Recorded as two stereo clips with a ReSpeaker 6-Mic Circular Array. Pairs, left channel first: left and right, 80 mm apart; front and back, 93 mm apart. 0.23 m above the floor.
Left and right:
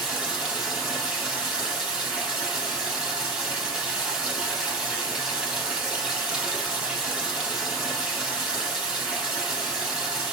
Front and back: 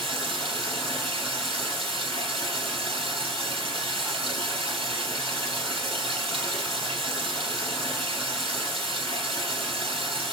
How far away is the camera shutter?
I don't hear a camera shutter.